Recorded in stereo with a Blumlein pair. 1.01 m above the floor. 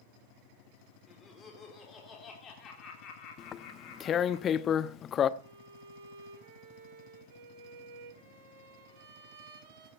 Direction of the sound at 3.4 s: 25° left.